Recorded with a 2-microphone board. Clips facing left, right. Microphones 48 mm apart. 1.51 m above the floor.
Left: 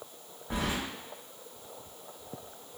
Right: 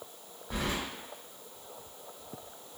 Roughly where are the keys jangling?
Left.